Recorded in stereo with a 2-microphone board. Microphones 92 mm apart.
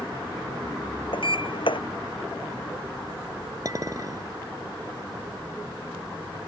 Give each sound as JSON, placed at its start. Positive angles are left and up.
{"t": 1.1, "sound": "a sliding door", "side_deg": 65}
{"t": 3.6, "sound": "a clink", "side_deg": -40}